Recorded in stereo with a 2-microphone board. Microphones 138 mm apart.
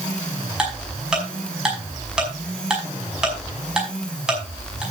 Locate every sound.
0.6 s ticking: 5° right (ahead or behind), 5.5 m